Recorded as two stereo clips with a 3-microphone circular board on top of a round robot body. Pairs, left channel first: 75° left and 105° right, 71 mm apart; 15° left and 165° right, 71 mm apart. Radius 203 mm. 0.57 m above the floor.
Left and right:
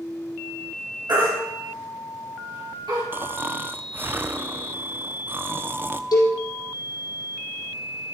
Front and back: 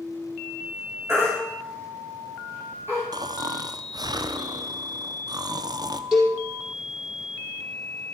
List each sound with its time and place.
1.1 s a baby crying: 115° right, 6.5 m
3.1 s snoring: 160° right, 0.9 m
6.1 s a cowbell: 105° left, 4.5 m